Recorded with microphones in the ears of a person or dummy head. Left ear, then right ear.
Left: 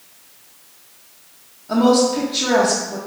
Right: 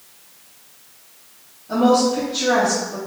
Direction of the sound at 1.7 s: 30° left (ahead or behind).